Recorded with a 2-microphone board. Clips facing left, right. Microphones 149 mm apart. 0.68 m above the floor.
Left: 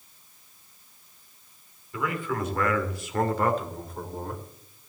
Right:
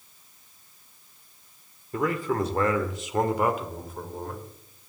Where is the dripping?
I don't hear dripping.